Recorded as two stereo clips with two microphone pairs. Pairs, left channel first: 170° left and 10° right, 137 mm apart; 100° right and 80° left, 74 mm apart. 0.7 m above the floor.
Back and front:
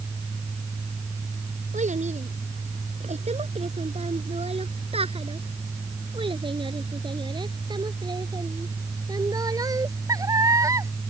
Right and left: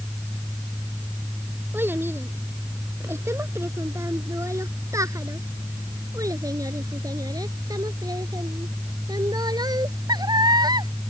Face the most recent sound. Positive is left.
turn(degrees=60)